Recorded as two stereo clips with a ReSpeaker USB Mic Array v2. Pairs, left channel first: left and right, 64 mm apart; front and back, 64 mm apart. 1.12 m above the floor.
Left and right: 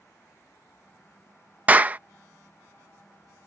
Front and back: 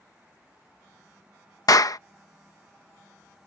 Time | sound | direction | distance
1.7 | a clap | 25° right | ?